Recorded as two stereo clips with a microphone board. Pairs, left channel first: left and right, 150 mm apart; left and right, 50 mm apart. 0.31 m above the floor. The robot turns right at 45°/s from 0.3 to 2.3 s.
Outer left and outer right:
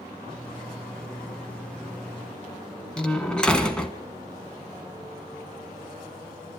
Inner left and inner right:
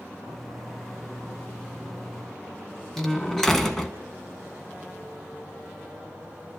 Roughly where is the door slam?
Centre.